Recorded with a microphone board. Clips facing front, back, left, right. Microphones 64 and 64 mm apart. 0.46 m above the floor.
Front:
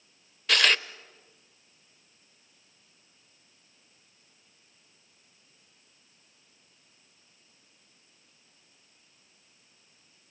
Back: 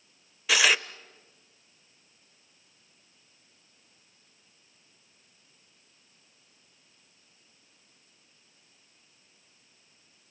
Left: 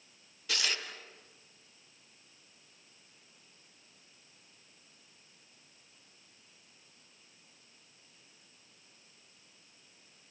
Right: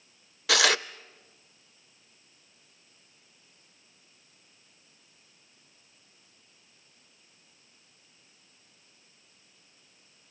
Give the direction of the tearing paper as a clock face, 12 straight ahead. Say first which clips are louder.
Back 1 dB, right 12 dB; 3 o'clock.